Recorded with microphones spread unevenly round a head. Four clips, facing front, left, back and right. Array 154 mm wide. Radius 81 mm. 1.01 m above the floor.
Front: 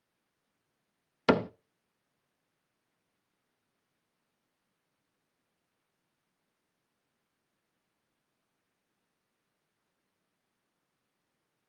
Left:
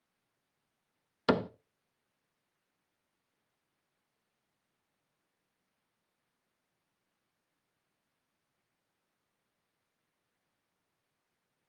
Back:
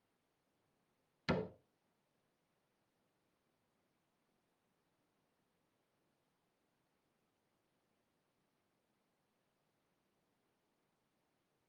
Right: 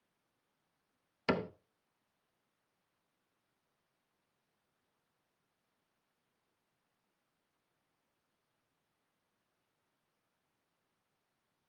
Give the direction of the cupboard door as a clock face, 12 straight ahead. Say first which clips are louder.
Left 5 dB, front 13 dB; 11 o'clock.